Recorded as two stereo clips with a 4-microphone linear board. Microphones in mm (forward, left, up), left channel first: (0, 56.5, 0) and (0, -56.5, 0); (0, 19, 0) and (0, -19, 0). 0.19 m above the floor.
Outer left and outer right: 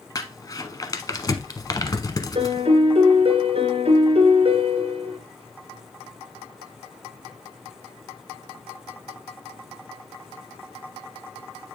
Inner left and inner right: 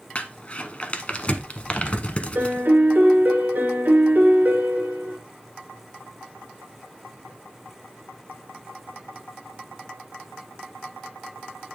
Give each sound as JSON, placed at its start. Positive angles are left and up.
{"t": 0.1, "sound": "crumpling", "side_deg": 35, "distance_m": 0.8}
{"t": 2.4, "sound": "a piano", "side_deg": -55, "distance_m": 1.4}